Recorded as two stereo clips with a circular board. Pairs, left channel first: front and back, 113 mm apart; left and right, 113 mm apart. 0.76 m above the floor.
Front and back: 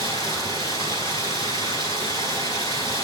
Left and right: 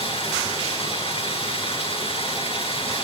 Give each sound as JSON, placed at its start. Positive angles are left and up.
{"t": 0.0, "sound": "running water", "azimuth_deg": 55, "distance_m": 9.0}